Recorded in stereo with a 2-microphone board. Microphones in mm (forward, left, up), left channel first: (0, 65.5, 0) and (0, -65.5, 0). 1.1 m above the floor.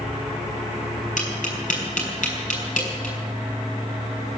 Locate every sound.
1.2 s tapping: 75° left (ahead or behind), 4.5 m